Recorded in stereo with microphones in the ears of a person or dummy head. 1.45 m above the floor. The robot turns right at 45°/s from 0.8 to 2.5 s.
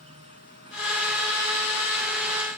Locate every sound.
0.0 s an insect: 145° right; by 2.6 s 70° right